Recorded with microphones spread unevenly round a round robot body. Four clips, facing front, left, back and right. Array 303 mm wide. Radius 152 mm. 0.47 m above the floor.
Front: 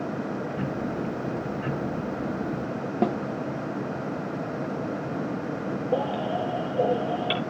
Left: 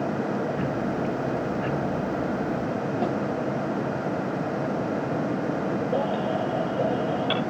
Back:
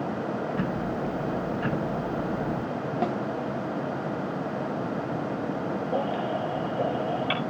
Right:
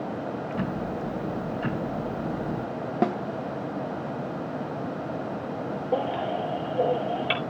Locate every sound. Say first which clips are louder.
0.5 s ticking: left 3 dB, back 1 dB; 145° right, 6 m
3.0 s a snare drum: right 4 dB, front 4 dB; 45° right, 0.8 m
5.9 s a baby crying: right 2 dB, front 3 dB; 40° right, 5 m